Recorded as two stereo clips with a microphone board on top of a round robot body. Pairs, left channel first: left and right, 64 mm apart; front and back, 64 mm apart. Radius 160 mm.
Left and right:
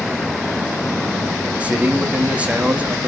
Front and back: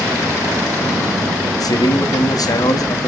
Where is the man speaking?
20° right, 2.0 m.